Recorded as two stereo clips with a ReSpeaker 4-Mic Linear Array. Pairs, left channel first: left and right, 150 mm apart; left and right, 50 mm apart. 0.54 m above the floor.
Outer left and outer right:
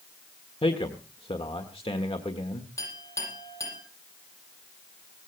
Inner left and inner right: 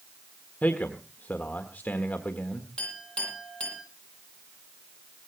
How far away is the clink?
About 9.5 m.